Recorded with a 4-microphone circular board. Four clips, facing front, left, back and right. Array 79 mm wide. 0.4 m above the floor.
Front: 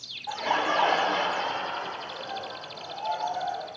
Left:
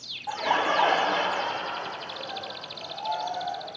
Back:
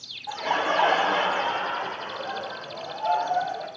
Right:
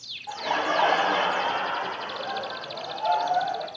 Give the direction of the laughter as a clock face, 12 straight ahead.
9 o'clock.